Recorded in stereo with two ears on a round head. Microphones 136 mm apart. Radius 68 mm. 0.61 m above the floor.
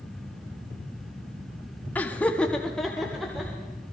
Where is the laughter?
10° left (ahead or behind), 0.9 m; by 3.5 s centre (ahead or behind), 2.0 m.